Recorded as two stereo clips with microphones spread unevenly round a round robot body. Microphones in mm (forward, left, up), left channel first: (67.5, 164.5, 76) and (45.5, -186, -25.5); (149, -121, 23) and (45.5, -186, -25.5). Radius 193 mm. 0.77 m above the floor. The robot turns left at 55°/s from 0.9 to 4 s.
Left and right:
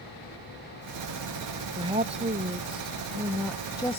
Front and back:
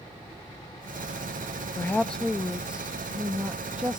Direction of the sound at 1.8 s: 65° right.